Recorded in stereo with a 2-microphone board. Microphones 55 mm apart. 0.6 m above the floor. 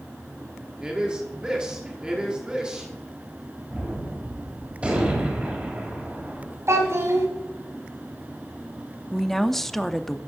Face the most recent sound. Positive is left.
turn(degrees=5)  # may be behind; listen again after turning